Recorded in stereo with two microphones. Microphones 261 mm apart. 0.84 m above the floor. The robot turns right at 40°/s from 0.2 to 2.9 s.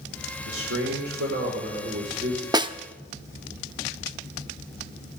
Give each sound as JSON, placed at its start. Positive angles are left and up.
{"t": 0.5, "sound": "a man speaking", "azimuth_deg": -100, "distance_m": 2.5}
{"t": 2.5, "sound": "a snare drum", "side_deg": -15, "distance_m": 0.5}